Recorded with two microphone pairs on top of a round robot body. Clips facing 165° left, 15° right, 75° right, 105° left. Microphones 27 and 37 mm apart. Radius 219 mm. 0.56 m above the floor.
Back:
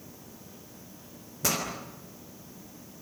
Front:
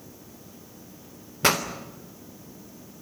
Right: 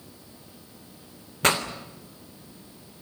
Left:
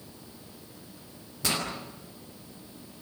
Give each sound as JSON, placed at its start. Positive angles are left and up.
{"t": 1.4, "sound": "a pop", "azimuth_deg": -50, "distance_m": 3.5}